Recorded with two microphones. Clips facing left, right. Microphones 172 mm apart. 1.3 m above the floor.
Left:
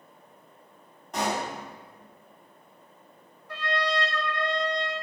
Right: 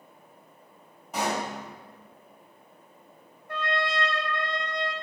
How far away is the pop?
About 3 m.